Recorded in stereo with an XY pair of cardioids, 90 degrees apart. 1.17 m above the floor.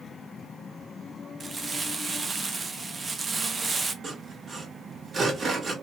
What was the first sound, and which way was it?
Crumpling, 40° right.